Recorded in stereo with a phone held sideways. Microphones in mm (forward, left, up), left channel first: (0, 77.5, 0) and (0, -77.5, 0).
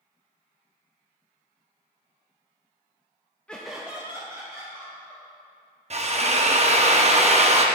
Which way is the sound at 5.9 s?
45° right (ahead or behind).